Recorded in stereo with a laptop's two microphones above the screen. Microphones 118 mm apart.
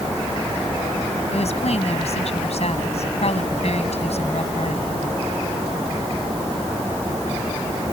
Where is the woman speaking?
65° left (ahead or behind).